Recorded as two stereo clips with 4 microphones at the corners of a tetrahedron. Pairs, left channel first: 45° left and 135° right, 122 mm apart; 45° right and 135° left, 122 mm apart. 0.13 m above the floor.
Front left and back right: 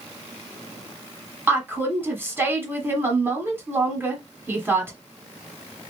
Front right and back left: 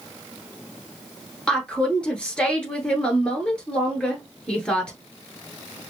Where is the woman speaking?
110° right, 1.2 m.